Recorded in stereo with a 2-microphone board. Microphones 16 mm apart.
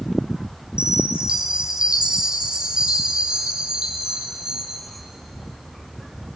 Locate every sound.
0.8 s a chime: 85° right, 4.5 m